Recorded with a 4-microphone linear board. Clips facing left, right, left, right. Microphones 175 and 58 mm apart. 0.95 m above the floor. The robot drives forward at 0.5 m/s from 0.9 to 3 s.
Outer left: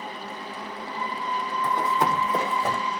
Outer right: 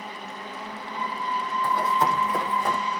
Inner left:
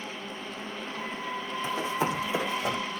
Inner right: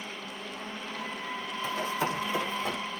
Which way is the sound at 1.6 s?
20° left (ahead or behind).